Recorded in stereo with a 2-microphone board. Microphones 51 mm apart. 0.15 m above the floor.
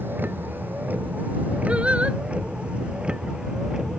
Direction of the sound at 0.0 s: 40° right (ahead or behind).